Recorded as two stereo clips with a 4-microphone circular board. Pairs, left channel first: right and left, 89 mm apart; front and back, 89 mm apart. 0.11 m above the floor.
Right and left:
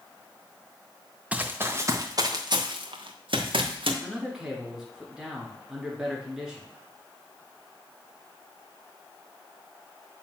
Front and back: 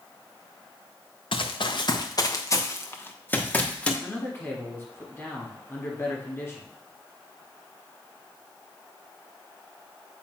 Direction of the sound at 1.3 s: 15° left.